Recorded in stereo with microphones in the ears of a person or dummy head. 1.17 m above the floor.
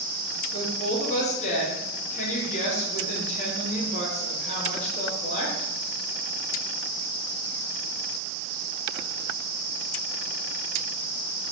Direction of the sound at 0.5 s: 35° left (ahead or behind).